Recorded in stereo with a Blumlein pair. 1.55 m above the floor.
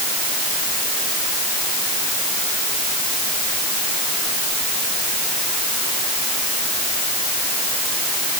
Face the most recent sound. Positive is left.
No sound to turn to.